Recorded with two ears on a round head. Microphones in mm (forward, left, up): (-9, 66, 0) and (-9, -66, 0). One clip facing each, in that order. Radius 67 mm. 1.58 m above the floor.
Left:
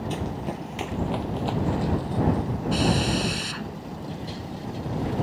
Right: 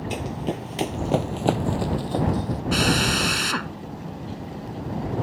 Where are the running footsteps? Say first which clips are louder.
Right 2 dB; 15° right (ahead or behind); by 2.6 s 70° right (ahead or behind).